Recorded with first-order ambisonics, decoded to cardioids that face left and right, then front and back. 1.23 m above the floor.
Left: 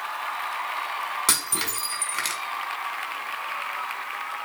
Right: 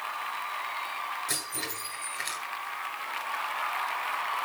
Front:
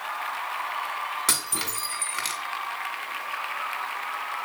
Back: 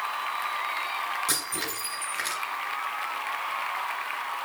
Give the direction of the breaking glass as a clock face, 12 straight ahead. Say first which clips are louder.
Left 8 dB, front 2 dB; 10 o'clock.